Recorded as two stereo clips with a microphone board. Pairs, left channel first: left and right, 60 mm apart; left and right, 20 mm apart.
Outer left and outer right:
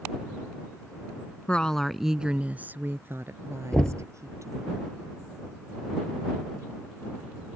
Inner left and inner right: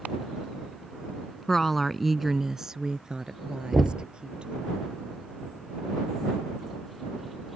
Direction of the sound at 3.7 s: 15° left (ahead or behind).